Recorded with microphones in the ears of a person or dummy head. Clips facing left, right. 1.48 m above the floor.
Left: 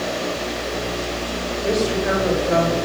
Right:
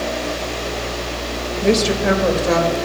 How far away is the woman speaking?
About 1.4 m.